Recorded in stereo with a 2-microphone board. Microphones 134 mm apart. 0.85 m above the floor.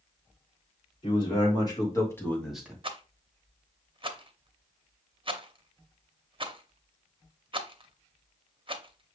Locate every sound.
1.0 s a man speaking: 35° left (ahead or behind), 2.5 m; by 2.7 s 15° right (ahead or behind), 0.9 m
2.8 s a rattle: 40° right (ahead or behind), 0.6 m